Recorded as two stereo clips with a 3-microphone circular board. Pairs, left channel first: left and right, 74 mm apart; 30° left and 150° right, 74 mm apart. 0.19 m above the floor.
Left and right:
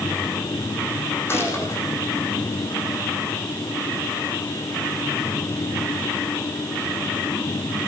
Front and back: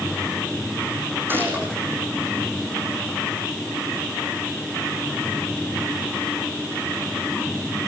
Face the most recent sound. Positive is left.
turn(degrees=145)